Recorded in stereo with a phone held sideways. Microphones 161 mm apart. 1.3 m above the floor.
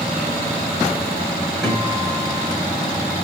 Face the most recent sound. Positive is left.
turn(degrees=0)  # may be behind; listen again after turning